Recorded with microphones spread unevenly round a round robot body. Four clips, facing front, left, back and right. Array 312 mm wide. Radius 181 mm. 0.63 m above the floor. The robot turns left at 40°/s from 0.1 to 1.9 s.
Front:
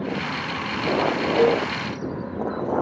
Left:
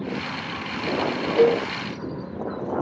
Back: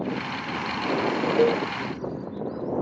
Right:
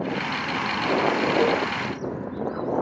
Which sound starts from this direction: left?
A cowbell, at 1.4 s.